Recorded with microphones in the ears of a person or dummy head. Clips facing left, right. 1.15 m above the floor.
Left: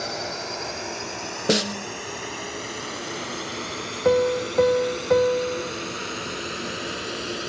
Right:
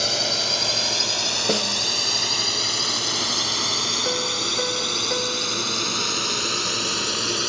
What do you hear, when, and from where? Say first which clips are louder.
0.0 s a drone: right 3 dB; 50° right (ahead or behind); by 7.5 s 65° right (ahead or behind)
1.5 s a snare drum: left 3 dB; 15° left (ahead or behind)
4.0 s a piano: left 11 dB; 65° left (ahead or behind)